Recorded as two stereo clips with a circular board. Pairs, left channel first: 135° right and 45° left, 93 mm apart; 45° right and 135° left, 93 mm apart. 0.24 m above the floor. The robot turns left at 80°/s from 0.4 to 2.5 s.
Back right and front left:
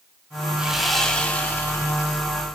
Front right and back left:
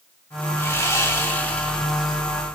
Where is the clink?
No clink in this recording.